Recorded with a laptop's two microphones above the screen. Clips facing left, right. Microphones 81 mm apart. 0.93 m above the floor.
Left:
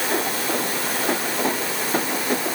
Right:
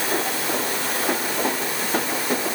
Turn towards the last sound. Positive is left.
No sound to turn to.